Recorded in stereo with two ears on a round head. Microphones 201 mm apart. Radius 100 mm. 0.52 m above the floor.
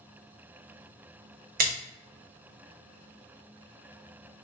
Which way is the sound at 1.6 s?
40° right (ahead or behind).